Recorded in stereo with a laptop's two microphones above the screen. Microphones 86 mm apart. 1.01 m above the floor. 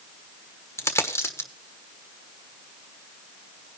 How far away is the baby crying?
I don't hear a baby crying.